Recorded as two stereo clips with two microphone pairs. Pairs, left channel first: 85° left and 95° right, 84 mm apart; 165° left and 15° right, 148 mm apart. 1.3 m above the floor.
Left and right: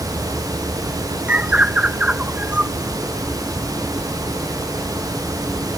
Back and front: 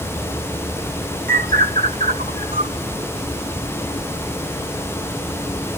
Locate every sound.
1.3 s a bird: 20° right